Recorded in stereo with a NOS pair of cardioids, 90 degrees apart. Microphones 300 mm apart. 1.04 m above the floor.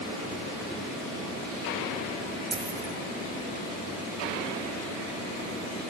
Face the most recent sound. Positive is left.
turn(degrees=-35)